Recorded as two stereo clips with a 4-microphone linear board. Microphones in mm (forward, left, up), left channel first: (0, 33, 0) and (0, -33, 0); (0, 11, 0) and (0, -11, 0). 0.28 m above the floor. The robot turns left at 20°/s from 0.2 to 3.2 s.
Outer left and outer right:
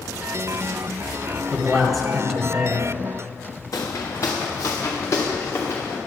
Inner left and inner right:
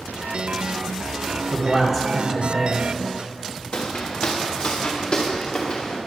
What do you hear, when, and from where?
1.5 s a man speaking: 5° left (ahead or behind), 1.3 m; by 2.9 s 10° right (ahead or behind), 1.3 m
3.7 s footsteps: 50° left (ahead or behind), 1.4 m; by 6.0 s 35° left (ahead or behind), 2.5 m